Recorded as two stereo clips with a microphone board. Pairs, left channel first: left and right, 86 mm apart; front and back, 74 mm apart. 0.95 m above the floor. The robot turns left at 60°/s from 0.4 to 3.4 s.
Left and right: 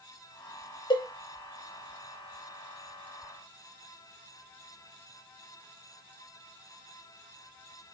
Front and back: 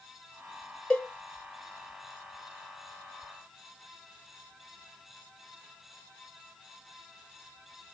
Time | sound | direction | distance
0.9 | a cowbell | 70° left | 0.8 m